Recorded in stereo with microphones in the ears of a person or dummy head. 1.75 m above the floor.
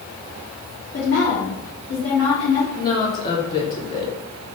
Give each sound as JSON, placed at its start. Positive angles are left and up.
{"t": 0.9, "sound": "a woman speaking", "side_deg": 70, "distance_m": 2.5}
{"t": 2.8, "sound": "a woman speaking", "side_deg": 25, "distance_m": 1.7}